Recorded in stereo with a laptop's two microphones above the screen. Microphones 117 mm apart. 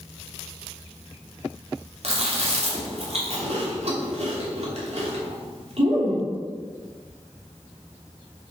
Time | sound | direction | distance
2.0 | chewing | 60° right (ahead or behind) | 3 m